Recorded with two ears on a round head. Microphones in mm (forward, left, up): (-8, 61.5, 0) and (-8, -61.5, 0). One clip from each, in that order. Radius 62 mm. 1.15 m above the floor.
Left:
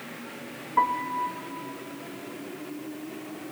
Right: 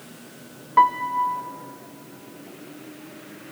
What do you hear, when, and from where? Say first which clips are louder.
0.8 s a piano: right 7 dB; 50° right (ahead or behind), 0.7 m